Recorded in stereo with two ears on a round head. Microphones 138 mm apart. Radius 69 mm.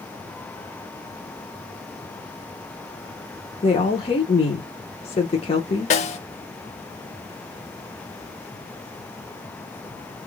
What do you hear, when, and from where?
3.6 s a woman speaking: 35° left (ahead or behind), 0.9 m
5.9 s a snare drum: 45° left (ahead or behind), 0.6 m